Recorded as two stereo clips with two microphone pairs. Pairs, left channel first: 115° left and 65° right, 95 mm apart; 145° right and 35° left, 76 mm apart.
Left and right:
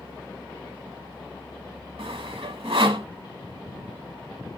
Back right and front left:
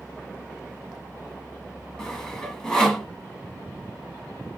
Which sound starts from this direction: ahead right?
Sawing, at 2.0 s.